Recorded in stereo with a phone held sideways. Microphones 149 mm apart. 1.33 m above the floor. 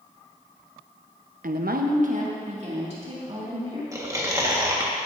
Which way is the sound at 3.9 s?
20° right (ahead or behind).